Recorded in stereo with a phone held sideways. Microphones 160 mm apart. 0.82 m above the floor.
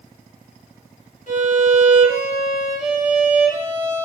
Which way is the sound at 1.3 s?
50° left (ahead or behind).